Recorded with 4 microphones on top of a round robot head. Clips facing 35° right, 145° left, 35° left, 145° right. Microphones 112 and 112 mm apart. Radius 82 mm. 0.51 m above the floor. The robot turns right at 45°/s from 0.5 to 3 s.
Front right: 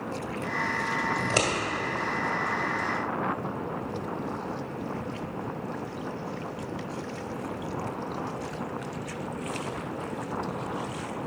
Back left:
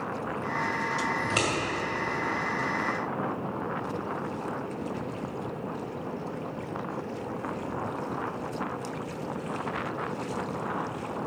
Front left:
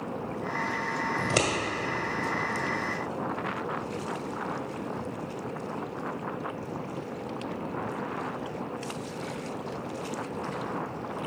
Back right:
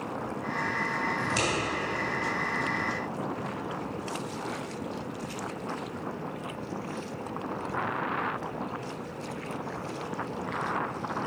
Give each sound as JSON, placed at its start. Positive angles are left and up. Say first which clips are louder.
{"t": 1.2, "sound": "scissors", "louder": "front right 1 dB, front left 5 dB", "azimuth_deg": 10, "distance_m": 1.6}